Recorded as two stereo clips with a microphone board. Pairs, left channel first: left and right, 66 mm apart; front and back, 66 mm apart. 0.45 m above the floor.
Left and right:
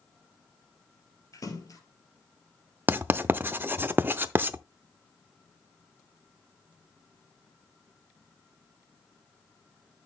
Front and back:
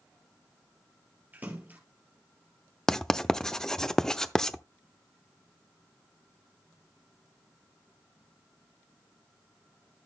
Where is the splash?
115° left, 2.5 m.